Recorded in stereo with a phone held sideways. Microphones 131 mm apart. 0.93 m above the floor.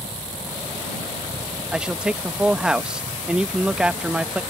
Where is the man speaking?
5° right (ahead or behind).